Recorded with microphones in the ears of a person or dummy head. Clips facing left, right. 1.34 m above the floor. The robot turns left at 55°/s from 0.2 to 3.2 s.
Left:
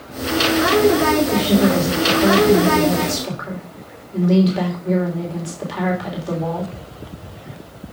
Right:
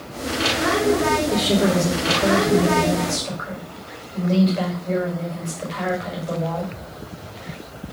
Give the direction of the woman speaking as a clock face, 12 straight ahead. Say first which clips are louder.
Left 3 dB; 6 o'clock.